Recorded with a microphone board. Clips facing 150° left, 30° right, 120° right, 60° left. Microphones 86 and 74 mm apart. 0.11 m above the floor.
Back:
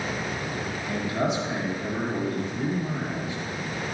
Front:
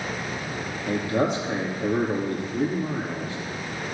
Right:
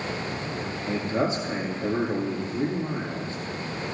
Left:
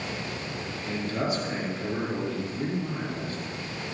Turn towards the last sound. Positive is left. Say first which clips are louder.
# front 4 dB, right 3 dB
turn(degrees=-60)